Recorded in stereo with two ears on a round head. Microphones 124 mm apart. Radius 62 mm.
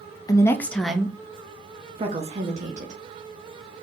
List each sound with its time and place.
0.3 s a woman speaking: 25° left (ahead or behind), 0.7 m; by 3.0 s 55° right (ahead or behind), 1.4 m